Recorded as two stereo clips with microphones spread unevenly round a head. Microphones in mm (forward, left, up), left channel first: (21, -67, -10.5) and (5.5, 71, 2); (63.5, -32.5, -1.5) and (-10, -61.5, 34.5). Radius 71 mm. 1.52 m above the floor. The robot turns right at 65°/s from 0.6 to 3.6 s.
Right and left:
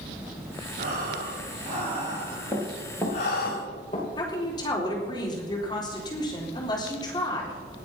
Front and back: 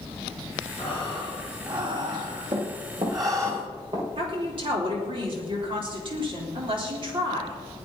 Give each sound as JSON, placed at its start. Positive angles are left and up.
{"t": 0.8, "sound": "breathing", "azimuth_deg": 70, "distance_m": 4.0}
{"t": 2.5, "sound": "running footsteps", "azimuth_deg": 170, "distance_m": 4.5}
{"t": 4.2, "sound": "a woman speaking", "azimuth_deg": -150, "distance_m": 4.0}